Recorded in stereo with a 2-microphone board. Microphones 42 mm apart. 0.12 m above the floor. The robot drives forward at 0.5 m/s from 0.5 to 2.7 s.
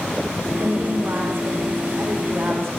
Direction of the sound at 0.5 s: 60° right (ahead or behind).